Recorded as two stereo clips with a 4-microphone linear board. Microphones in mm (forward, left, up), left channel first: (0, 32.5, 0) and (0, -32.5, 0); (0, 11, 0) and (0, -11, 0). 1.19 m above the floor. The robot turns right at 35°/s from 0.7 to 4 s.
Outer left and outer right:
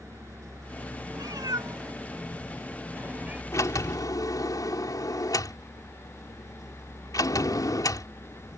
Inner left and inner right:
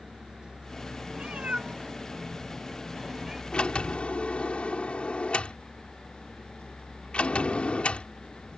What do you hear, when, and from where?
0.0 s a vehicle: 55° right; by 8.6 s 60° left
1.1 s a cat meowing: 80° right; by 3.4 s 20° right (ahead or behind)
3.5 s a sliding door: 55° left (ahead or behind); by 8.1 s 70° left (ahead or behind)